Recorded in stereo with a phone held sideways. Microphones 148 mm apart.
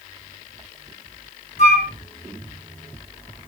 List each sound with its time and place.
1.6 s a flute: 55° left (ahead or behind), 1.3 m